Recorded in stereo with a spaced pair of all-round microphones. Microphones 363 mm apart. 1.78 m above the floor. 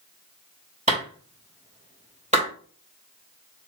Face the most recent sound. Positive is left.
turn(degrees=-20)  # may be behind; listen again after turning